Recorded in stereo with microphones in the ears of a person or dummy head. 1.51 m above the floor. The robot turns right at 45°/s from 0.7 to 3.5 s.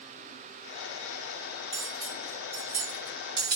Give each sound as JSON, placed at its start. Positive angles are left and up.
{"t": 1.7, "sound": "cutlery clinking", "side_deg": 5, "distance_m": 1.2}